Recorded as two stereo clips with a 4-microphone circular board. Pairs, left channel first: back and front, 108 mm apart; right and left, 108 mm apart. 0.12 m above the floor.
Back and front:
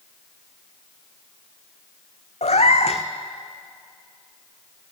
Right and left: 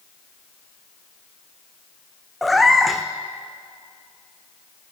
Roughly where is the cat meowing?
Behind.